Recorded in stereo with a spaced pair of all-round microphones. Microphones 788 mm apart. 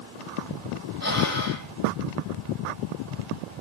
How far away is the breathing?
About 7 m.